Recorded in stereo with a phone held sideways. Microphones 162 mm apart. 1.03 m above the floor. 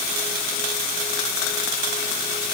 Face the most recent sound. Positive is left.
No sound to turn to.